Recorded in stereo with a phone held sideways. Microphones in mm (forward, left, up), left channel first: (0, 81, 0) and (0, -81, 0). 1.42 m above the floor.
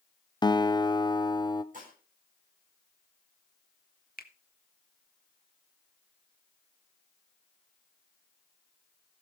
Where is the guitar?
25° left (ahead or behind), 0.6 m.